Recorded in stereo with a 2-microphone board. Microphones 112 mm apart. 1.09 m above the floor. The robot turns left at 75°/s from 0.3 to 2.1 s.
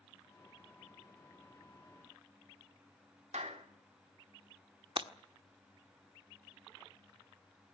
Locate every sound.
3.3 s a clap: 80° right, 2.5 m
5.0 s breaking glass: 50° right (ahead or behind), 1.2 m